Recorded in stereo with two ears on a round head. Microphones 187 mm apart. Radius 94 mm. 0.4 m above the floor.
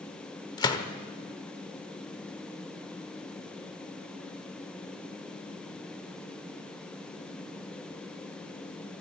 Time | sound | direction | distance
0.6 | a gunshot | 20° left (ahead or behind) | 1.1 m